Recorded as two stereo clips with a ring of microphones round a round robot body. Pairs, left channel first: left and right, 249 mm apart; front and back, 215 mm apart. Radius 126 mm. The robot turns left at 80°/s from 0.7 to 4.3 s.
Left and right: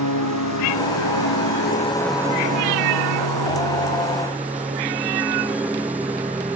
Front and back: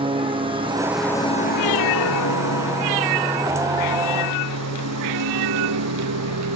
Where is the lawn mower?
115° left; by 6.5 s 175° right.